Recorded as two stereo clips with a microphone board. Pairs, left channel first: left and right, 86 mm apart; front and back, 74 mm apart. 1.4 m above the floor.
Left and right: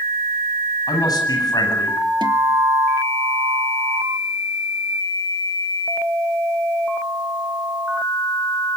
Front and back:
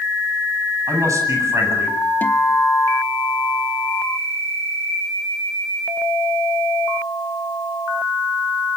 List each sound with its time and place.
0.9 s a man speaking: 135° left, 9 m; by 2.0 s 130° left, 9 m
2.2 s a guitar: 65° right, 1.6 m